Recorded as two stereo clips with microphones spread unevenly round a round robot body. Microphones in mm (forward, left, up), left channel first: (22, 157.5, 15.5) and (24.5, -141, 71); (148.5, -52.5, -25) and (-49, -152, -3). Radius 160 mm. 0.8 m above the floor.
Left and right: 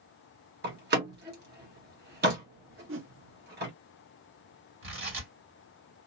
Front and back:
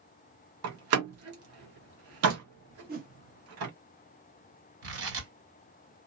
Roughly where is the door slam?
Behind right.